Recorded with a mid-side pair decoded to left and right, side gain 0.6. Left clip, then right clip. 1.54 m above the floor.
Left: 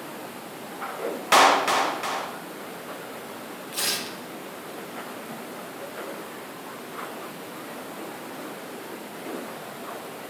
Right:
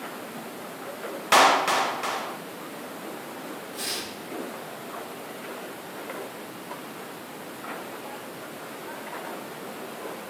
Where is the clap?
Straight ahead, 0.5 m.